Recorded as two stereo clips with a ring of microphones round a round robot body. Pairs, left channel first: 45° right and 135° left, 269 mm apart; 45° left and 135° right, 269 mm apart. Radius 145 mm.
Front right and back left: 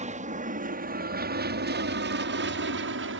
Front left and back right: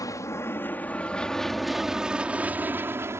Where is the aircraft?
110° left; by 3.2 s 150° left.